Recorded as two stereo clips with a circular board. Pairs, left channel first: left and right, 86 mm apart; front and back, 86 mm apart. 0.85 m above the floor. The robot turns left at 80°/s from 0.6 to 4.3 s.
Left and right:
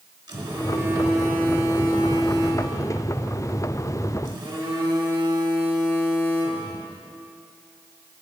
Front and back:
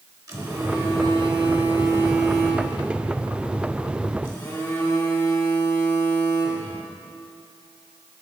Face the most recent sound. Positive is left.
turn(degrees=-65)